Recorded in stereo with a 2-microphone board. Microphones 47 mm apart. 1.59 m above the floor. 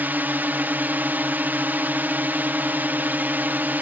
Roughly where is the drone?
Right.